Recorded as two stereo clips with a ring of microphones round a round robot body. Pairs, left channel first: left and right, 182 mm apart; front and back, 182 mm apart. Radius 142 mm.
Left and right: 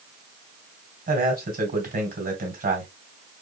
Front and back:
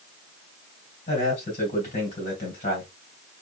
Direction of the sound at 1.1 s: 55° right.